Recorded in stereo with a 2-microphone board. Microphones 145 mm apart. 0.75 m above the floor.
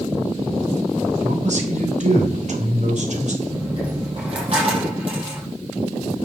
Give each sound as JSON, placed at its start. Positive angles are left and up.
{"t": 1.2, "sound": "a man speaking", "side_deg": -60, "distance_m": 3.0}
{"t": 3.4, "sound": "a dropped coin", "side_deg": -45, "distance_m": 6.5}